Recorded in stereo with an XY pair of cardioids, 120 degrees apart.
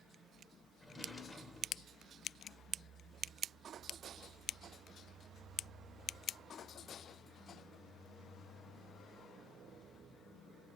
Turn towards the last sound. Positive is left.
turn(degrees=15)